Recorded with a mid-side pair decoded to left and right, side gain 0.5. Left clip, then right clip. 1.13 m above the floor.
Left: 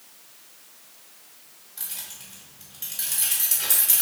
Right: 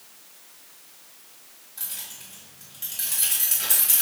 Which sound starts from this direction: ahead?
Keys jangling, at 1.8 s.